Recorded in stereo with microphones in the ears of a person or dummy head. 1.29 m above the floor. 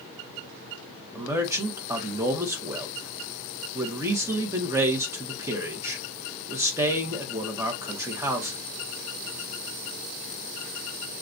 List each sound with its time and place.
1.1 s a man speaking: 10° right (ahead or behind), 0.9 m